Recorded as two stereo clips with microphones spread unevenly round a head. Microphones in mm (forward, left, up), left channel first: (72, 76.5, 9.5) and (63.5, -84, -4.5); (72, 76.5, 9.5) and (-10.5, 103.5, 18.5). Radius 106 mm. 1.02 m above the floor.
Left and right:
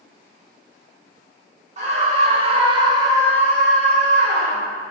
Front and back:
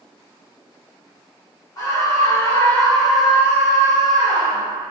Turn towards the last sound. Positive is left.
turn(degrees=145)